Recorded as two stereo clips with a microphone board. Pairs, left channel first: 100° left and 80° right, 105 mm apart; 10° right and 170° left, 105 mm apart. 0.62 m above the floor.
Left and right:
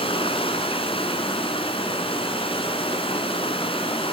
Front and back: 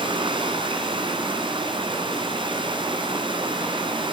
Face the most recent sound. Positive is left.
turn(degrees=130)